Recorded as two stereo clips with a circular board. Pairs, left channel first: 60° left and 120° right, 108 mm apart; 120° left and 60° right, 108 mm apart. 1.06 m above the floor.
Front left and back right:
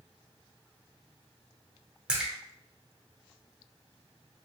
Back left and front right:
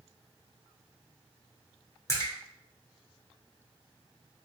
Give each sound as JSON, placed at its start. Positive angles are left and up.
{"t": 2.1, "sound": "a splash", "azimuth_deg": 165, "distance_m": 0.8}